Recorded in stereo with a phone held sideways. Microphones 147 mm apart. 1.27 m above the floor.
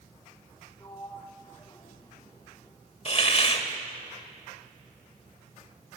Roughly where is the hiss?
Left.